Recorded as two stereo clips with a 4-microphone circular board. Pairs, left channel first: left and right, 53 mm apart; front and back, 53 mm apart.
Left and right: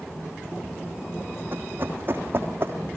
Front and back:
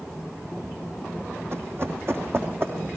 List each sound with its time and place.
1.5 s running footsteps: 140° right, 3 m; by 2.8 s 135° right, 3.5 m